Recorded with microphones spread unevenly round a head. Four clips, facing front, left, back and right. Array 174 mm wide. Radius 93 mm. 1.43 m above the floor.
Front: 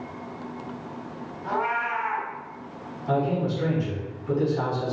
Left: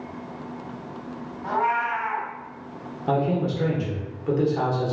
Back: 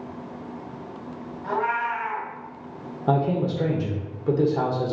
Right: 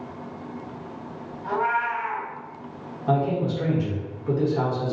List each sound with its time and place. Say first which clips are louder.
1.4 s a cat meowing: left 1 dB, back 1 dB; 105° left, 1.1 m
3.1 s a man speaking: even, back 2 dB; 170° left, 0.9 m